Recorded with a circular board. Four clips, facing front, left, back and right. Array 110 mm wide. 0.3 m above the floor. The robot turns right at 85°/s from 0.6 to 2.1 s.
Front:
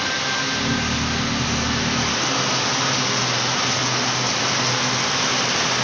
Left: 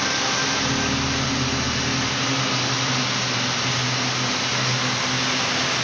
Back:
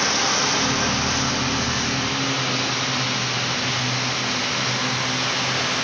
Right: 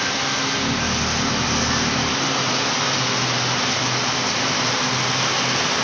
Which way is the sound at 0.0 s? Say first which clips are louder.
Even, back 2 dB; straight behind.